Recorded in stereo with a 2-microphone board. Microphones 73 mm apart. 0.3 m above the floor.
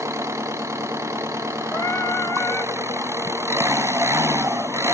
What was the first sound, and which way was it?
An engine running, 40° right (ahead or behind).